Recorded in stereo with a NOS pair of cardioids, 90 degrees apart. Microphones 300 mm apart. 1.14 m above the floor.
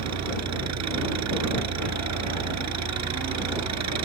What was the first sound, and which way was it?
An engine running, 65° right.